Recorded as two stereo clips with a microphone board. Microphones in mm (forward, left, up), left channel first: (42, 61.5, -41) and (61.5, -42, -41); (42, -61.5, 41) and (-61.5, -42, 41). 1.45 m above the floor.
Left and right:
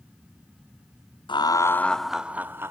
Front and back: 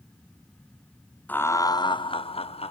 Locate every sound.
1.3 s laughter: 60° left, 0.5 m; by 2.7 s 10° right, 0.9 m